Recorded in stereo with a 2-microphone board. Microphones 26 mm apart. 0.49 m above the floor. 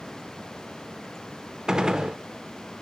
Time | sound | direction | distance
1.7 | a gunshot | 30° right (ahead or behind) | 0.6 m